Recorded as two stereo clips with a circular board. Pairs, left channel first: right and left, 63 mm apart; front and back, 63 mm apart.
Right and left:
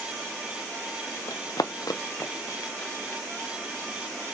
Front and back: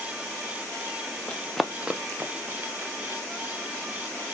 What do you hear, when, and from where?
1.3 s running footsteps: 70° right, 0.9 m; by 3.2 s 145° right, 1.9 m